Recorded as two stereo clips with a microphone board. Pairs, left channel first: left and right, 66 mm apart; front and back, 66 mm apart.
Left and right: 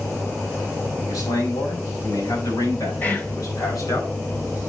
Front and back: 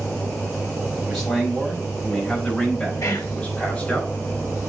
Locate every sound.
1.1 s a man speaking: 90° left, 5.5 m; by 4.0 s 65° left, 5 m
3.0 s whispering: 30° left, 1.9 m